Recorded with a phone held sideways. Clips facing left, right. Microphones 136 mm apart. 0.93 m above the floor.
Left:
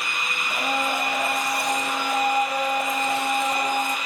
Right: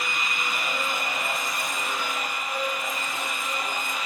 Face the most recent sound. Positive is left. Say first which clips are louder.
# left 9 dB
turn(degrees=75)  # may be behind; listen again after turning